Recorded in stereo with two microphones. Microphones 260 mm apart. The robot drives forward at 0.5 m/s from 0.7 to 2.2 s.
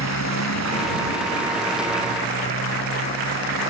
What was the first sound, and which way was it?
A motorcycle, 80° left.